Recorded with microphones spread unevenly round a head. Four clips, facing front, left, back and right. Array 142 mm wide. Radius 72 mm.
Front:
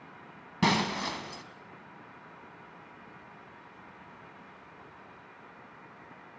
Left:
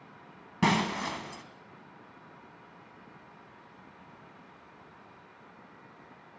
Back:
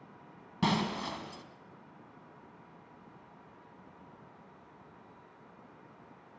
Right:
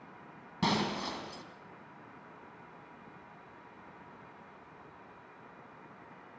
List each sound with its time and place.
0.6 s breaking glass: 45° left, 2 m